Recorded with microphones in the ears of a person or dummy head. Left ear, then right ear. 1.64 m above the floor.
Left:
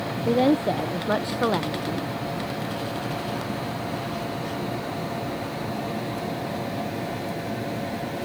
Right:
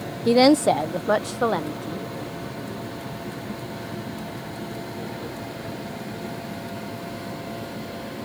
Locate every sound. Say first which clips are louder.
0.2 s a woman speaking: right 5 dB; 60° right (ahead or behind); by 2.1 s 10° right (ahead or behind)